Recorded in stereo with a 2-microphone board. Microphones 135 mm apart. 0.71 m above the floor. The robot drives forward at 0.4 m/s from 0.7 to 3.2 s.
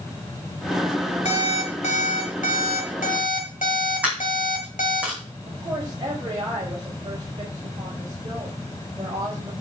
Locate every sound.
1.2 s an alarm clock: 65° left (ahead or behind), 2 m; by 5.0 s 85° left, 2.0 m
4.0 s a dropped coin: 10° right (ahead or behind), 4.5 m
5.5 s a woman speaking: 35° right (ahead or behind), 4.5 m